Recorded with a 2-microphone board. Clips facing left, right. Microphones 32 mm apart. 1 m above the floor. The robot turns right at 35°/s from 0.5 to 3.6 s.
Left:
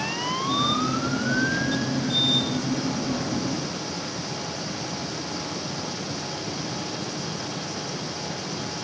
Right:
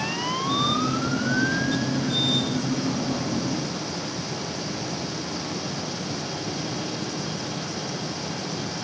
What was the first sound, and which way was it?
Only background noise.